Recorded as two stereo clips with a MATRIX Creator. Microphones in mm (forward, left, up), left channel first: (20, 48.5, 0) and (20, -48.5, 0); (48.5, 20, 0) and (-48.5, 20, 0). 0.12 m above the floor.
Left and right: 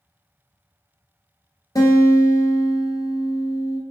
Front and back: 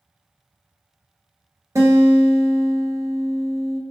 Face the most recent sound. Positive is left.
turn(degrees=130)